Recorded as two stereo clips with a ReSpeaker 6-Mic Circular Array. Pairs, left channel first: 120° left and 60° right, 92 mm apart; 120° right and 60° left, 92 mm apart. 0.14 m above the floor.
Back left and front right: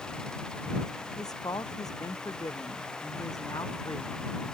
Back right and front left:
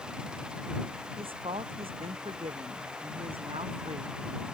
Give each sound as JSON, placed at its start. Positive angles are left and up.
{"t": 1.2, "sound": "a woman speaking", "azimuth_deg": 75}